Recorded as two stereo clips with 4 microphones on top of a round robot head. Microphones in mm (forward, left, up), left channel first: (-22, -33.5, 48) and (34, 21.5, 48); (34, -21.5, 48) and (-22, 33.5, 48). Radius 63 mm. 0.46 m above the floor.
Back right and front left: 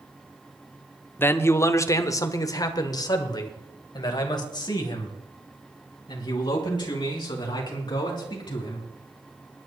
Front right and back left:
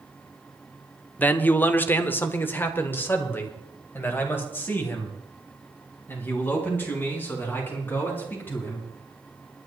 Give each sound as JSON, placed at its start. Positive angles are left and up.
{"t": 1.2, "sound": "a man speaking", "azimuth_deg": -95, "distance_m": 1.0}